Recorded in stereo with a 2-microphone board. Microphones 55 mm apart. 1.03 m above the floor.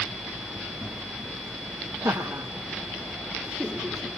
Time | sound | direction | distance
2.0 | laughter | 60° right (ahead or behind) | 1.1 m